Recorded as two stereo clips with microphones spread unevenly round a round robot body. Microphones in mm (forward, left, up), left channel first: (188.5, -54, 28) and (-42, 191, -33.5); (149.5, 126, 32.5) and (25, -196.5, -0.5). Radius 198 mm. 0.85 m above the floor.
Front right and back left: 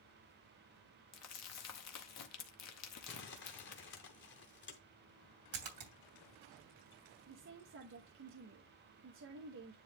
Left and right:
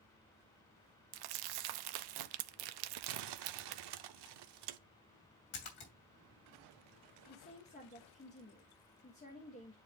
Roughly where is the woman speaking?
Behind left.